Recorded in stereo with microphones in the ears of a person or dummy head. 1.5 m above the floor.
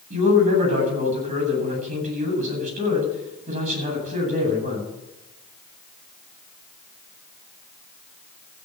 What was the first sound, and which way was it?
A man speaking, 40° right (ahead or behind).